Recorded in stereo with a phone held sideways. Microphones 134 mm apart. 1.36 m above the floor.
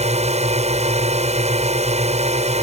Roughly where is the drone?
Right.